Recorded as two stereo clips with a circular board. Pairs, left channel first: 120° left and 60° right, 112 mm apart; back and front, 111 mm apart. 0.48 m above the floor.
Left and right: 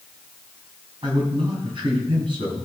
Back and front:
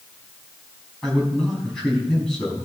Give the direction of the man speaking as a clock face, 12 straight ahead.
3 o'clock.